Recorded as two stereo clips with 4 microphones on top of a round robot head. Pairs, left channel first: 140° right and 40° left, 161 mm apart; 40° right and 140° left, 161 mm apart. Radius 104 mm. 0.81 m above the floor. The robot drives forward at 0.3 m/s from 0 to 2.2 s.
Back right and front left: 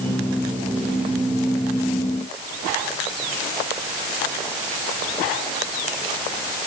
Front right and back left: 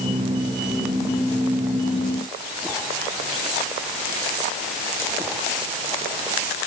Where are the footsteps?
I don't hear footsteps.